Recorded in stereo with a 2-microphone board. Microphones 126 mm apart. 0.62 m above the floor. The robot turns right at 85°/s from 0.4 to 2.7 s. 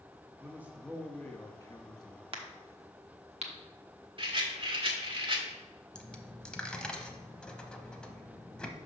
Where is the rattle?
45° right (ahead or behind), 1.3 m.